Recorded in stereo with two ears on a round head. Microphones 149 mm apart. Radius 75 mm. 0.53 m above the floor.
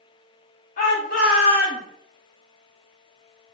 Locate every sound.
0.8 s a shout: 45° left (ahead or behind), 1.7 m; by 1.8 s 60° left (ahead or behind), 2 m